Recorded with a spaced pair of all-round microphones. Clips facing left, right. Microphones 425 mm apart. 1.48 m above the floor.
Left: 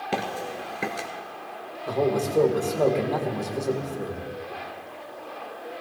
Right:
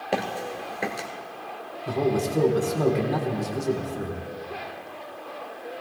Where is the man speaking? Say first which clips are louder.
Even; 30° right (ahead or behind), 2 m.